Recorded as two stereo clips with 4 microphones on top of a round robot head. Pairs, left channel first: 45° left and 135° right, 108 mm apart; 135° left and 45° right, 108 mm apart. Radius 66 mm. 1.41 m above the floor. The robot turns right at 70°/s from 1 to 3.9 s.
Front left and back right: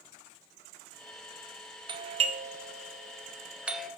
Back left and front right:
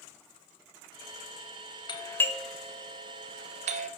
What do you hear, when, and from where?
1.9 s a doorbell: straight behind, 0.6 m; by 3.9 s 40° right, 0.6 m